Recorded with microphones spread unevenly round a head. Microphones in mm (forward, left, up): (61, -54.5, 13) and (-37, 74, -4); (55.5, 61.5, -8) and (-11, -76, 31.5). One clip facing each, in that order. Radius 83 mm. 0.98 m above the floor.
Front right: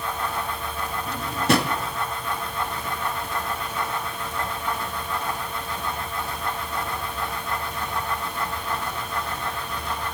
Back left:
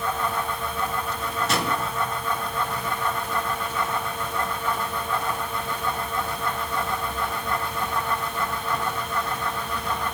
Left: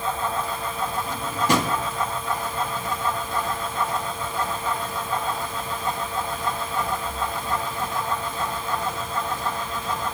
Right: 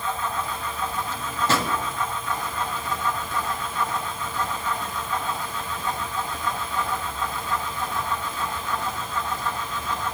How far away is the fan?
About 4 m.